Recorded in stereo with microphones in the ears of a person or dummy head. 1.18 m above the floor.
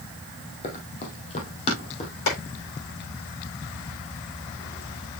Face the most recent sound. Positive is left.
turn(degrees=85)